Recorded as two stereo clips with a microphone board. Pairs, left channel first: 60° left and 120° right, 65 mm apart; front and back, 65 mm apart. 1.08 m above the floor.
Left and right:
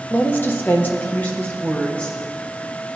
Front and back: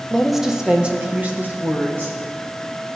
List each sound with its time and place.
0.1 s a woman speaking: 70° left, 0.8 m; by 2.2 s 125° left, 2 m